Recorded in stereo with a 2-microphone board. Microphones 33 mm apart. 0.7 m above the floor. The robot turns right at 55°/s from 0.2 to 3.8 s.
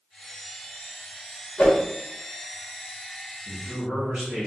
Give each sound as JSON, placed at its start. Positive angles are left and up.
{"t": 1.6, "sound": "a whoosh", "side_deg": 45, "distance_m": 1.2}
{"t": 3.5, "sound": "a man speaking", "side_deg": -20, "distance_m": 1.9}